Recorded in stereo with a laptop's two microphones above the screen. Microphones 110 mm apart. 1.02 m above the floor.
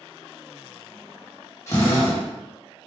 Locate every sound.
1.7 s a drill: 25° left (ahead or behind), 1.4 m